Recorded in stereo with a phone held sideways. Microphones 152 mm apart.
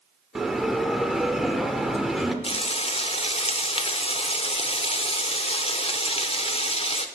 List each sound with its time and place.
0.3 s a bell: centre (ahead or behind), 0.8 m
2.4 s frying: 40° left (ahead or behind), 0.7 m